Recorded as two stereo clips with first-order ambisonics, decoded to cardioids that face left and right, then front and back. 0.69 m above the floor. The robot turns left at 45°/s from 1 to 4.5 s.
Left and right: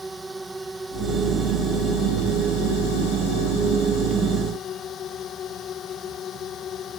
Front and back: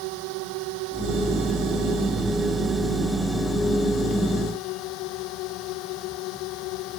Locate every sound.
0.0 s a drone: 175° right; by 7.0 s 30° left